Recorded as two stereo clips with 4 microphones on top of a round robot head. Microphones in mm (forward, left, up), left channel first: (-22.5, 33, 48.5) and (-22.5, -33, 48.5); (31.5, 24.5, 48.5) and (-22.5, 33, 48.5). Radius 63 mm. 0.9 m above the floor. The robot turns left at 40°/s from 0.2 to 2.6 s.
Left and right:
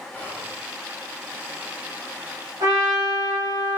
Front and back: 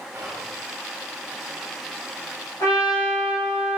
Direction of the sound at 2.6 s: 45° right.